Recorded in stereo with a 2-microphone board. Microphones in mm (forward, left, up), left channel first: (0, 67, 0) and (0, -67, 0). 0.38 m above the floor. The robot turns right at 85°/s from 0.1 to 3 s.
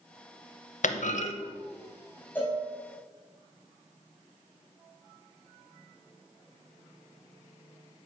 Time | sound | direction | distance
0.8 | a clunk | 80° left | 0.6 m
2.4 | a cowbell | 15° left (ahead or behind) | 2.5 m